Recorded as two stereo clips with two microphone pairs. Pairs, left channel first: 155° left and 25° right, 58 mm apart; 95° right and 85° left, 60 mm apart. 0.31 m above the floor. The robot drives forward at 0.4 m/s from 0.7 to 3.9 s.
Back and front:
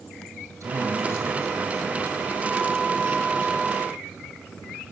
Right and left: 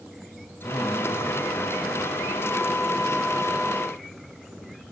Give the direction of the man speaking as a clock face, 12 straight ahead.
2 o'clock.